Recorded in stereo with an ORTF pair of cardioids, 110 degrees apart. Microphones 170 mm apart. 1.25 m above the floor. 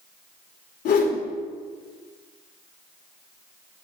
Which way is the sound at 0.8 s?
65° left.